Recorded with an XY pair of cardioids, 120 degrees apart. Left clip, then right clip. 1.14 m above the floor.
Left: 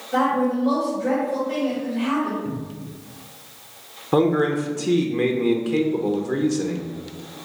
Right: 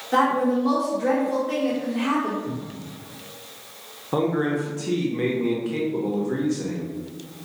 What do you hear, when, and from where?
0.1 s a woman speaking: 65° right, 1.1 m
2.5 s a cupboard door: 40° left, 0.8 m
4.1 s a man speaking: 25° left, 0.6 m